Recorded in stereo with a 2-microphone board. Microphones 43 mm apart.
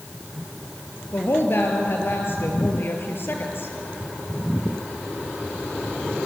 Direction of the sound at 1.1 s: 55° left (ahead or behind).